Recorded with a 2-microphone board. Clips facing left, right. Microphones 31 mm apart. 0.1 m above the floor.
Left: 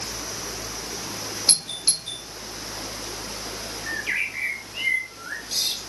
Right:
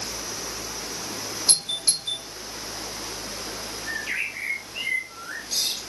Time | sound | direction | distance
1.5 | a doorbell | 35° left (ahead or behind) | 2.5 m
3.9 | a bird | 25° left (ahead or behind) | 1.7 m